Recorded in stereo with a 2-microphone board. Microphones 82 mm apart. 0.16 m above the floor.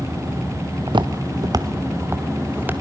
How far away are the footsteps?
About 1.4 m.